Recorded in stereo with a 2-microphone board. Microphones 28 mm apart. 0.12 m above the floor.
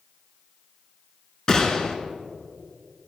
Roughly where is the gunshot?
Left.